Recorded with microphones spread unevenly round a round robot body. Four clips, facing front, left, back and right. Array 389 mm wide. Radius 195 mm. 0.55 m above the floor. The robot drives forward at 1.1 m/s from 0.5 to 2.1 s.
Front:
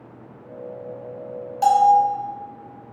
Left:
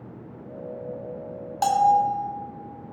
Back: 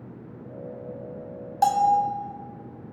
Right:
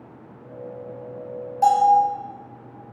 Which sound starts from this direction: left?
A bell, at 1.6 s.